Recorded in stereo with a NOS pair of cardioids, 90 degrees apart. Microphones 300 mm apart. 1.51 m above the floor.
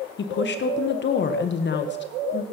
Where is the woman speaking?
40° left, 1.0 m.